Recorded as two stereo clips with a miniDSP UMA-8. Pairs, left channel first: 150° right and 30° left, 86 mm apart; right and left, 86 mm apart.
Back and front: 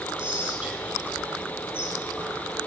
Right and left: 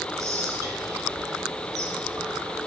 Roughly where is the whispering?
Left.